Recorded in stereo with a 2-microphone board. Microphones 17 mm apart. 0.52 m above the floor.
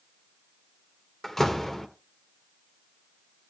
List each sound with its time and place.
1.2 s a door slam: 25° left (ahead or behind), 1.3 m